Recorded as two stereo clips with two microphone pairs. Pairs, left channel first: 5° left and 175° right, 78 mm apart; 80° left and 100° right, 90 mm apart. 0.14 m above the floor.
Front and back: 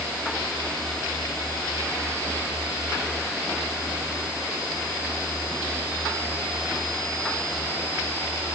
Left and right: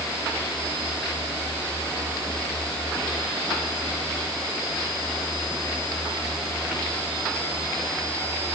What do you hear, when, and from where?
Only background noise.